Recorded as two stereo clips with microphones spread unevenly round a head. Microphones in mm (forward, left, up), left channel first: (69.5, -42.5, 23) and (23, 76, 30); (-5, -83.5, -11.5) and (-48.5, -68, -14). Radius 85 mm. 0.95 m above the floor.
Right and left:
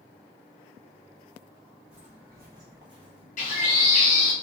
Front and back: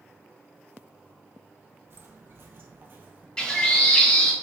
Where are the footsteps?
170° right, 1.6 m; by 3.3 s 120° left, 1.1 m.